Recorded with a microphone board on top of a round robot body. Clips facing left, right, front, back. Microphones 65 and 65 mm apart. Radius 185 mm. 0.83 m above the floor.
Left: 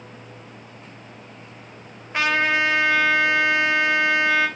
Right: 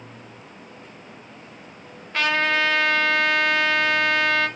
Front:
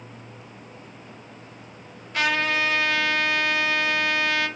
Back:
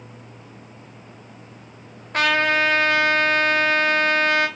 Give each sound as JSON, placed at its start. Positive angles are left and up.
{"t": 2.1, "sound": "a trumpet", "azimuth_deg": 160, "distance_m": 1.1}